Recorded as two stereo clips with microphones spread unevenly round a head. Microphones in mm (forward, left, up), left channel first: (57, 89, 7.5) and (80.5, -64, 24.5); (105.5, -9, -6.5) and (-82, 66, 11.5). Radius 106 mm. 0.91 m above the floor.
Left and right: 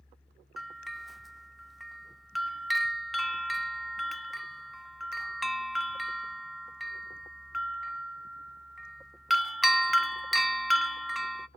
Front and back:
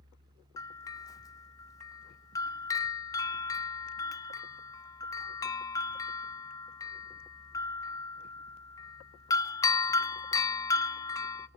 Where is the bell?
20° left, 0.6 m.